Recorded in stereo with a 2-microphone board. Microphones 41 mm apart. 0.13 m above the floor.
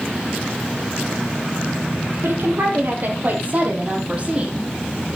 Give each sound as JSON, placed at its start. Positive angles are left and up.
{"t": 2.2, "sound": "a woman speaking", "side_deg": -65, "distance_m": 4.0}